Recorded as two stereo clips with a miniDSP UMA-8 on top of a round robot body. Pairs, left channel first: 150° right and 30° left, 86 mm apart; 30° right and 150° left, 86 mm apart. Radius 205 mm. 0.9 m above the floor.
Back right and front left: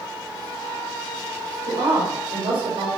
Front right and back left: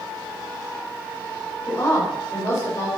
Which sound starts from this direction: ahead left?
A woman speaking, at 1.7 s.